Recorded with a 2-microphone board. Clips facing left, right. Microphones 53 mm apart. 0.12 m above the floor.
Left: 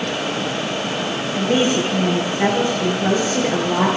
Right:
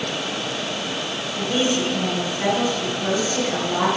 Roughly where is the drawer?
No drawer in this recording.